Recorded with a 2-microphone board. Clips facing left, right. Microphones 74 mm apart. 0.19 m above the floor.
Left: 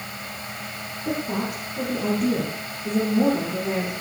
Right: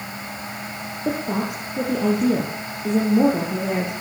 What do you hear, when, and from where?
1.1 s a woman speaking: 75° right (ahead or behind), 4 m